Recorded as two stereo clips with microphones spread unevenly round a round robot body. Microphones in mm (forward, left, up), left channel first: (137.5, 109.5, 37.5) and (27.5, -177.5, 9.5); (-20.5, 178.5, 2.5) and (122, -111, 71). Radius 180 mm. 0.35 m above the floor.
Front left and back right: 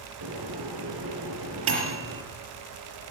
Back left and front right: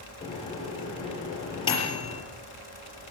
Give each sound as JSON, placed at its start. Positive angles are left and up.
{"t": 0.2, "sound": "a microwave", "azimuth_deg": -165, "distance_m": 5.5}